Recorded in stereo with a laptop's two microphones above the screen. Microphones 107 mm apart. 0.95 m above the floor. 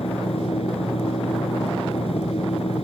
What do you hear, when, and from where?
0.0 s a machine running: 75° left (ahead or behind)